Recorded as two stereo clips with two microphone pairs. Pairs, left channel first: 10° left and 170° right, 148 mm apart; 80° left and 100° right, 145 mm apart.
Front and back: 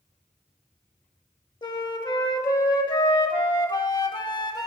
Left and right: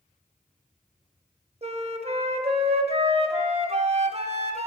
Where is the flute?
55° right, 0.6 m.